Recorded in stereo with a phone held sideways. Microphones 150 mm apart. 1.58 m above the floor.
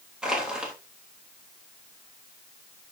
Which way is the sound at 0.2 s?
5° right (ahead or behind).